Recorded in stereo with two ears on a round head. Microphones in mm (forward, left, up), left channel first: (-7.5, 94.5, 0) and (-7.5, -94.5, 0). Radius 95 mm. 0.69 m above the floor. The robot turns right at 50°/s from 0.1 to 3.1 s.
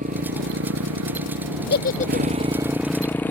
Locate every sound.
0.0 s a motorcycle: 140° right; by 3.3 s 10° left
1.7 s a giggle: 55° left (ahead or behind); by 2.5 s 10° left (ahead or behind)